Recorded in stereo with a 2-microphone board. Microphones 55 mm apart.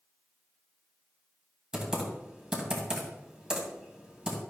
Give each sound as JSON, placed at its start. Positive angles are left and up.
{"t": 1.7, "sound": "typing on a keyboard", "side_deg": -15, "distance_m": 2.5}